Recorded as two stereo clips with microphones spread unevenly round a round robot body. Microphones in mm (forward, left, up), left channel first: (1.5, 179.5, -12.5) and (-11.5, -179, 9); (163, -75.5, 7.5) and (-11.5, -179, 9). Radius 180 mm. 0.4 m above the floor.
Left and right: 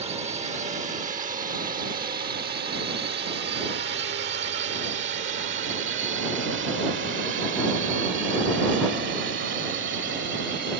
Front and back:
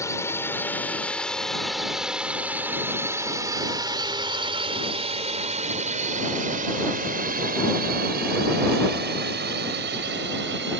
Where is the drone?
30° right; by 10.8 s 150° right.